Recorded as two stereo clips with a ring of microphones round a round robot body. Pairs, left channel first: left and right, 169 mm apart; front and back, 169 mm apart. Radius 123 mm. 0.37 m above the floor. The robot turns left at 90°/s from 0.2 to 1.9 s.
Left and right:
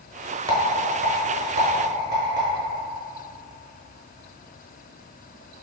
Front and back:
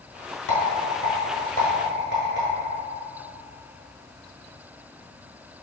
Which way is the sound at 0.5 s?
20° right.